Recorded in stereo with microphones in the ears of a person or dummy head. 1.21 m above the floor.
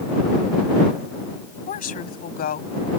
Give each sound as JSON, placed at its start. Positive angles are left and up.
{"t": 1.7, "sound": "a woman speaking", "side_deg": 45}